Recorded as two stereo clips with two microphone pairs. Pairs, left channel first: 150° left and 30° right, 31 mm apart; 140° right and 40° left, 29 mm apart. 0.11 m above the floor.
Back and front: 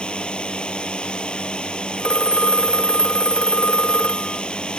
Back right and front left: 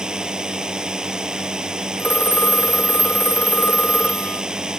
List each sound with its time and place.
0.0 s a drone: 100° left
2.0 s a phone ringing: 155° right